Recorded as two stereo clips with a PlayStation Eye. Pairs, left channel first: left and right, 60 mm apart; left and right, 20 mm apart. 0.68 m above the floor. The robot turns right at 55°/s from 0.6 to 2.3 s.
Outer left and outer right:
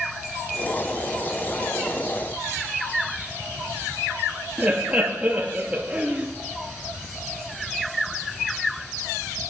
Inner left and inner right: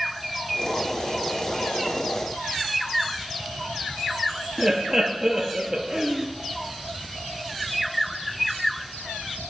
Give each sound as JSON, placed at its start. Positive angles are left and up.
{"t": 4.6, "sound": "laughter", "side_deg": -20, "distance_m": 0.8}